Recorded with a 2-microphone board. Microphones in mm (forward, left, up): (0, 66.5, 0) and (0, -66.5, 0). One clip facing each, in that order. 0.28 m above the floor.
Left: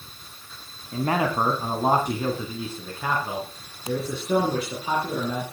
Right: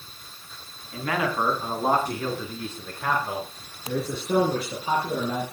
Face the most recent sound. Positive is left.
turn(degrees=-10)  # may be behind; listen again after turning